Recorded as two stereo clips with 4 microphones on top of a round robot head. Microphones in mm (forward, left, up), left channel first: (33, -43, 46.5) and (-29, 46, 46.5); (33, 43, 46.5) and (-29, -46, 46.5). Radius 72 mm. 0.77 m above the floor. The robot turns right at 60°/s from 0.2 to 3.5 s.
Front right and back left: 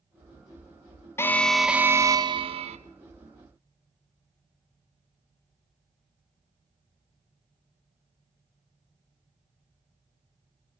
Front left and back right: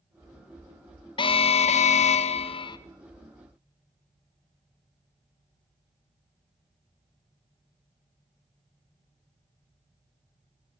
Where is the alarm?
10° left, 0.9 m; by 2.8 s 105° left, 0.9 m.